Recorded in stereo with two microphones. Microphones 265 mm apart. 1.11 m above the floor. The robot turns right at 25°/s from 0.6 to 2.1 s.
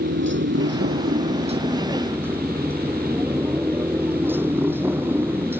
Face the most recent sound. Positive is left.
turn(degrees=-10)